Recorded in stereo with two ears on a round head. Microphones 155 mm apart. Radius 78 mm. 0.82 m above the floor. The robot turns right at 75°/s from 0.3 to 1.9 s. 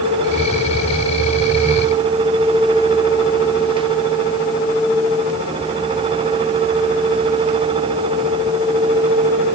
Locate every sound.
Only background noise.